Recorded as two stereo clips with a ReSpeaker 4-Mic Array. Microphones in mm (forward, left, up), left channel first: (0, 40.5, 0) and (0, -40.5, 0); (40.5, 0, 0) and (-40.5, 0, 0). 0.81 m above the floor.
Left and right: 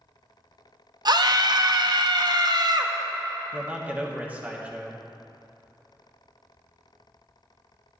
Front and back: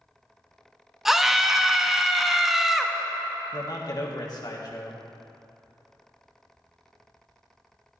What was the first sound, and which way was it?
A scream, 95° right.